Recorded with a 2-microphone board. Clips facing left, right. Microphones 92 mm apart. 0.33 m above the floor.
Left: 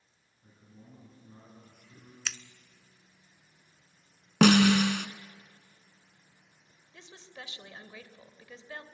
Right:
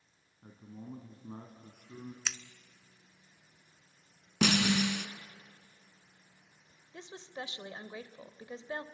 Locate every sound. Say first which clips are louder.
0.4 s a man speaking: right 8 dB; 65° right (ahead or behind), 2.5 m
2.2 s scissors: left 3 dB; 10° right (ahead or behind), 0.6 m
4.4 s a snare drum: left 8 dB; 80° left, 0.8 m
6.9 s a woman speaking: right 5 dB; 30° right (ahead or behind), 1.0 m